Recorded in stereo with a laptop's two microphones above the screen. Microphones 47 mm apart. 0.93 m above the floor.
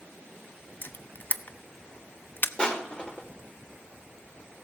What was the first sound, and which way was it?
A camera shutter, 45° left (ahead or behind).